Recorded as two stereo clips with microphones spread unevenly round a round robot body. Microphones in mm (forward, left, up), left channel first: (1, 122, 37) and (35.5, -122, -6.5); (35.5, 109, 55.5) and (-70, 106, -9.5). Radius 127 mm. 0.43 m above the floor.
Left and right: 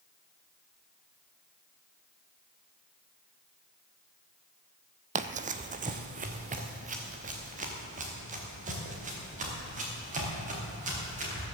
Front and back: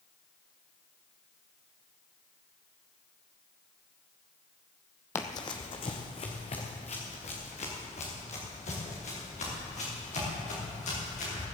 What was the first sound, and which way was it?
Running footsteps, 15° right.